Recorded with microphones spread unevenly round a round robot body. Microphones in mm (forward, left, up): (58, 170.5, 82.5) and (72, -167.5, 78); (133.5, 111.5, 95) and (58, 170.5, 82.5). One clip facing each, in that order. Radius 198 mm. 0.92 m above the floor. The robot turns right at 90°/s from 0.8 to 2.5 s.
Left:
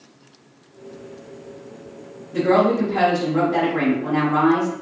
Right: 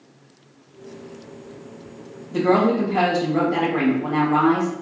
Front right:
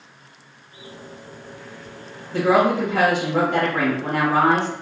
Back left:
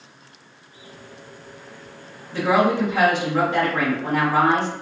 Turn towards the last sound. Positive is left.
turn(degrees=-60)